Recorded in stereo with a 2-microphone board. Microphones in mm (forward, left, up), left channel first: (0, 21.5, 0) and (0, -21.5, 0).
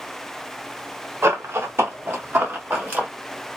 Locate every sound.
1.2 s running footsteps: 85° right, 1.2 m; by 3.1 s 40° right (ahead or behind), 2 m